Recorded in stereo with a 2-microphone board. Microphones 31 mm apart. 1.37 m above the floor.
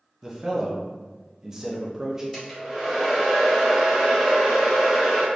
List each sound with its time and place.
0.2 s a man speaking: 20° right (ahead or behind), 0.7 m
2.3 s a hair dryer: 15° right (ahead or behind), 1.1 m